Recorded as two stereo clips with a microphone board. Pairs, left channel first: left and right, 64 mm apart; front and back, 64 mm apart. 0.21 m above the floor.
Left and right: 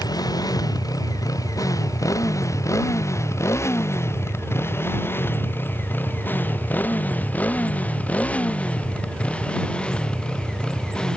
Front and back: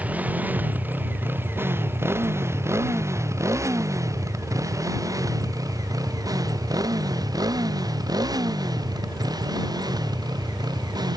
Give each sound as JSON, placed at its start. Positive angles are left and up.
{"t": 0.0, "sound": "a motorcycle", "azimuth_deg": 110}